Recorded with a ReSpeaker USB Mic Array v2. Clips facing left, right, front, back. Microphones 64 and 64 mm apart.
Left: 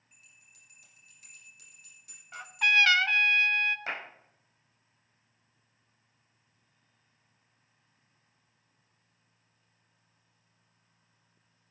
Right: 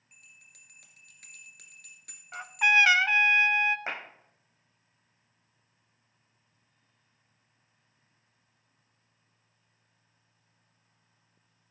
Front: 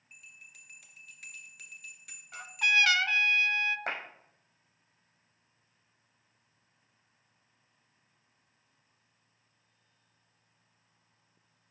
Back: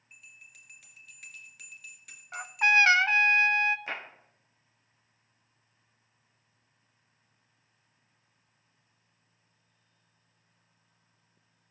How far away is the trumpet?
About 0.5 m.